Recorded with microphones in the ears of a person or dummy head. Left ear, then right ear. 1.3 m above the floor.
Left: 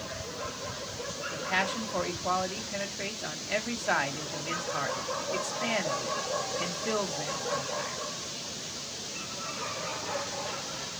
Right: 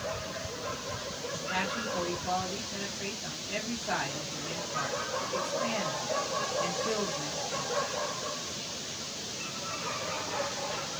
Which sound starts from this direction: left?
A man speaking, at 1.3 s.